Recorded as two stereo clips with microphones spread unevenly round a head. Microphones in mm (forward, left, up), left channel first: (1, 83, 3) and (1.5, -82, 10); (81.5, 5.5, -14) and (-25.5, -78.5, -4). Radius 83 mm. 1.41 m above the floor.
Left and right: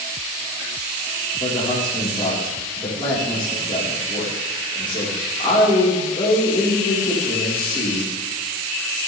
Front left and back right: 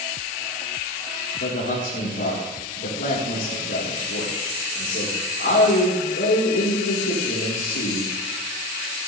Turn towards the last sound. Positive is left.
turn(degrees=30)